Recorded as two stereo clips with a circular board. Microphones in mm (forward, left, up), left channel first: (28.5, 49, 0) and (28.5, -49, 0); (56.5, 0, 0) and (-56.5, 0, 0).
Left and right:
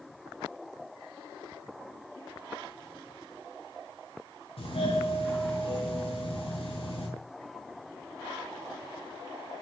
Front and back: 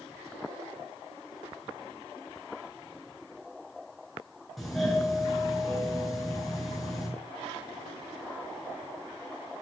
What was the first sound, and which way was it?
A doorbell, 90° left.